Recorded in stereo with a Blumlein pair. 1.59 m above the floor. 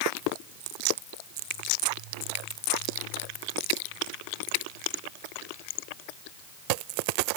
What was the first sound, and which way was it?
Only background noise.